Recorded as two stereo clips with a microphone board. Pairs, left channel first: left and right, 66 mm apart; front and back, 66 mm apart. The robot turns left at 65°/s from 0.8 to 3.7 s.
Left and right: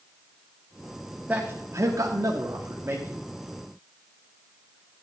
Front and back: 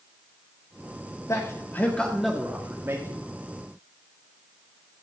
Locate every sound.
1.3 s a man speaking: 25° right, 1.9 m; by 3.3 s 155° right, 1.9 m